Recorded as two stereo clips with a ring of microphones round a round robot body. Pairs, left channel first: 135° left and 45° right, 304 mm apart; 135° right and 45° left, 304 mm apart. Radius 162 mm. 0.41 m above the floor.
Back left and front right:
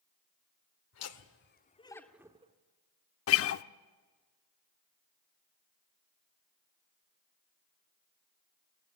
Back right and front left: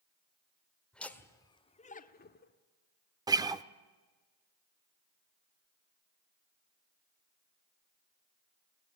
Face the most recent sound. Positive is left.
turn(degrees=120)